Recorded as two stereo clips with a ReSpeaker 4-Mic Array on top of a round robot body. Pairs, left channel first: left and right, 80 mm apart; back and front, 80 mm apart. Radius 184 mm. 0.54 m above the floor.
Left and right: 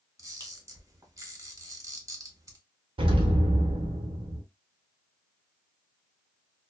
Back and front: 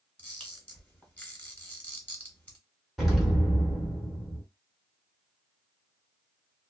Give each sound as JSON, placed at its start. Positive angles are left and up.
{"t": 0.2, "sound": "a camera shutter", "azimuth_deg": -115, "distance_m": 1.6}
{"t": 3.0, "sound": "an explosion", "azimuth_deg": -90, "distance_m": 0.6}